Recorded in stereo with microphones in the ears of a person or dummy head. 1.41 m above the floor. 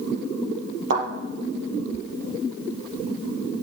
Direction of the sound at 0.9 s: 75° right (ahead or behind).